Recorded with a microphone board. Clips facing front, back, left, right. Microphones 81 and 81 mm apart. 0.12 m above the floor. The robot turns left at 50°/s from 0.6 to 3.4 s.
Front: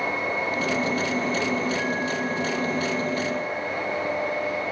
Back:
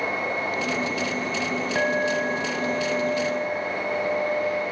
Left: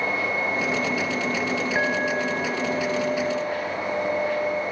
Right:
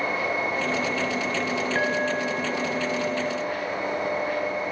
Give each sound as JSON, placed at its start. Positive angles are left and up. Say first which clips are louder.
{"t": 1.8, "sound": "a clink", "louder": "back 3 dB, left 1 dB", "azimuth_deg": 165, "distance_m": 6.5}